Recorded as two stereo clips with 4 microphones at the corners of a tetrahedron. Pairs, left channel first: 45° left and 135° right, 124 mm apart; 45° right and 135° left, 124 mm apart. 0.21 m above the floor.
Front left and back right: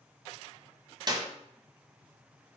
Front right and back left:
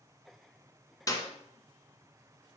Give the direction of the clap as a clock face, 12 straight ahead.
3 o'clock.